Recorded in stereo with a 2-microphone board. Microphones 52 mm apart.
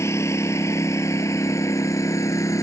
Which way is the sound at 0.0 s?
65° left (ahead or behind).